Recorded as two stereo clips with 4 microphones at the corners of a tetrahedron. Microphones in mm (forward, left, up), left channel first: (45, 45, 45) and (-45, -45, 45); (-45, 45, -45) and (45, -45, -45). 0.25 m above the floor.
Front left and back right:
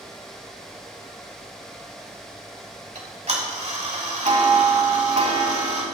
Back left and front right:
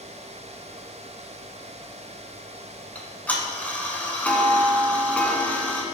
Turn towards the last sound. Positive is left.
turn(degrees=-150)